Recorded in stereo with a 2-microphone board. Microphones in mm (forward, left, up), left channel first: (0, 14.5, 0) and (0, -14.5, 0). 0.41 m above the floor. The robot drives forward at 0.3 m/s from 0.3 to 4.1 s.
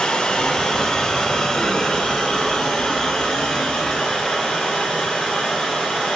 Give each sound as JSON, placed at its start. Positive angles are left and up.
{"t": 0.0, "sound": "running water", "side_deg": 30, "distance_m": 0.9}